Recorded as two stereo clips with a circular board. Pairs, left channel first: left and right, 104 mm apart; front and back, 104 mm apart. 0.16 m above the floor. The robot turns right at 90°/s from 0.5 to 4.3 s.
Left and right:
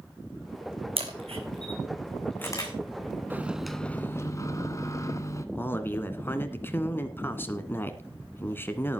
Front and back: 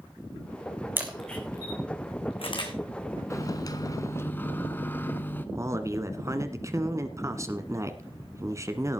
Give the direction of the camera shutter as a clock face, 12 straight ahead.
4 o'clock.